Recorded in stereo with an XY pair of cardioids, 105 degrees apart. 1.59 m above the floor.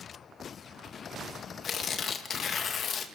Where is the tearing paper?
55° left, 2 m.